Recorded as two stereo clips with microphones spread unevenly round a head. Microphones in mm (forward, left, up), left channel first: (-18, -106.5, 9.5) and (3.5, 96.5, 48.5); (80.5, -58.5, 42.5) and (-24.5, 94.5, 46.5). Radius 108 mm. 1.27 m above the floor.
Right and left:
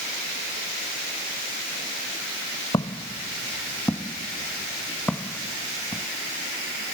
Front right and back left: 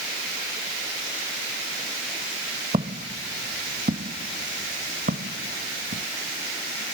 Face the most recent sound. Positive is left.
turn(degrees=175)